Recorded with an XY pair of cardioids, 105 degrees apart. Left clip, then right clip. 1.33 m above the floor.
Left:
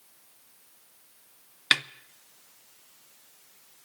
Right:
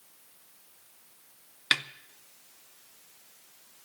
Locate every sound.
1.7 s a snare drum: 25° left, 0.6 m